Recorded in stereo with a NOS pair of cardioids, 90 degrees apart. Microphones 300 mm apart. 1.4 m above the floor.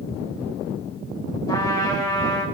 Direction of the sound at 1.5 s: 10° left.